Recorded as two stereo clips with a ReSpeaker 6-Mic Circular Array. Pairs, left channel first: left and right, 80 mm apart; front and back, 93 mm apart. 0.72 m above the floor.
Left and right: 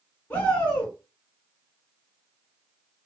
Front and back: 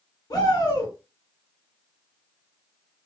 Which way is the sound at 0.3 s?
25° left.